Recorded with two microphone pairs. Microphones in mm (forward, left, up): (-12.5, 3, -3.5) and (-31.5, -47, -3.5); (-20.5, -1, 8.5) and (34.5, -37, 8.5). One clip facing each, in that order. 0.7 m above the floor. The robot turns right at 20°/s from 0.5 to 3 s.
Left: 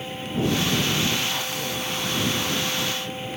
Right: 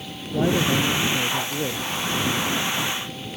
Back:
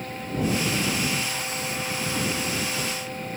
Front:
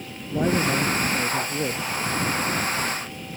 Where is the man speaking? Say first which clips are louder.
Right 3 dB, front 4 dB; 75° right; by 1.9 s 45° right.